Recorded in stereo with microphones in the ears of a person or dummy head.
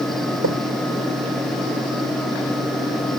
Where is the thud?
65° right (ahead or behind), 4 m.